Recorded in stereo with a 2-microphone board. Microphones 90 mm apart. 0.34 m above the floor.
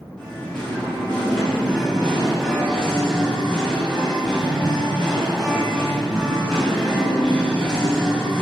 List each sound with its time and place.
0.2 s singing: 10° left (ahead or behind), 2.5 m